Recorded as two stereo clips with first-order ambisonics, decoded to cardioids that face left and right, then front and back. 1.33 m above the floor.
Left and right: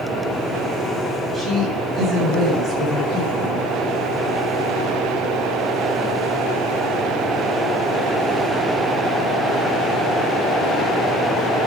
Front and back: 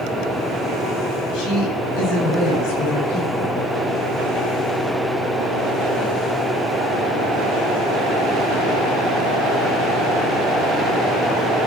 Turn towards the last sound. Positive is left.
turn(degrees=-20)